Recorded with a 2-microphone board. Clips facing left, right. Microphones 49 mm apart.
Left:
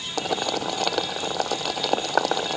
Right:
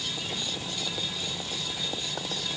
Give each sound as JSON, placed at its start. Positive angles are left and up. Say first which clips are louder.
{"t": 0.2, "sound": "boiling", "louder": "left 9 dB", "side_deg": 80}